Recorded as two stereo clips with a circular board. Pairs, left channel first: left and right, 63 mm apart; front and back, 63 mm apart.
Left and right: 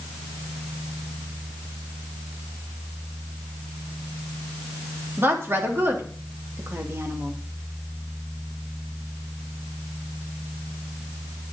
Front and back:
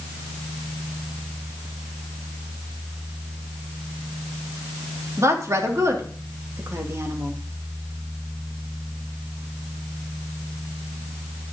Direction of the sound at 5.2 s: 140° right.